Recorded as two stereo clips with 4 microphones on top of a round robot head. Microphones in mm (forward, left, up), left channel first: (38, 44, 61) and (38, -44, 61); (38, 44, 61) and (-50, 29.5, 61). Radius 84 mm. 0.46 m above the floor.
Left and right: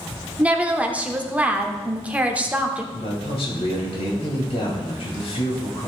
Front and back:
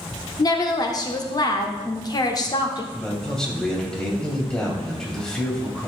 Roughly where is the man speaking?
Left.